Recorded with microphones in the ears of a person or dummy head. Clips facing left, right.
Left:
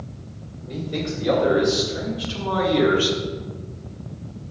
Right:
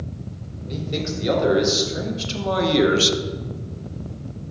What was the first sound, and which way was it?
A man speaking, 30° right (ahead or behind).